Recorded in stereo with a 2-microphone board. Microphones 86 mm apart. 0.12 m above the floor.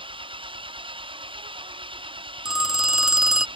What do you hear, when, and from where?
0.0 s an engine running: 80° right
2.5 s a phone ringing: 10° right (ahead or behind)